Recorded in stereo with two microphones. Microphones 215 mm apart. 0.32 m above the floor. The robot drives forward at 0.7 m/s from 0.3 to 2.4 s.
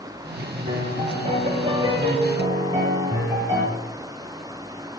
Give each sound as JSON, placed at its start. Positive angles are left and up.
{"t": 0.7, "sound": "a piano", "side_deg": -30, "distance_m": 2.5}